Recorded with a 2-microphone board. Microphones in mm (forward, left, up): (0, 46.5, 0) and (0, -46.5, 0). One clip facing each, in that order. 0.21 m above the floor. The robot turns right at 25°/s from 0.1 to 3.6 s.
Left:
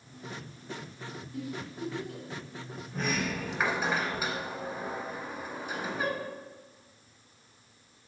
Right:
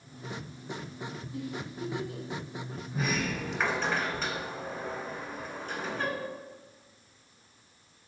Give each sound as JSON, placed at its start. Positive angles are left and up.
{"t": 1.3, "sound": "a giggle", "side_deg": -5, "distance_m": 1.7}
{"t": 2.9, "sound": "a sliding door", "side_deg": -5, "distance_m": 0.8}